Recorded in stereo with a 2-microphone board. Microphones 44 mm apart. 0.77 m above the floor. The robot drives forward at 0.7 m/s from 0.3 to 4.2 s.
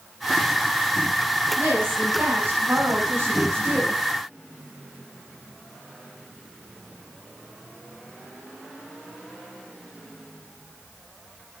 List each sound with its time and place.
1.6 s a woman speaking: 50° right (ahead or behind), 6 m; by 4.0 s 65° right (ahead or behind), 5 m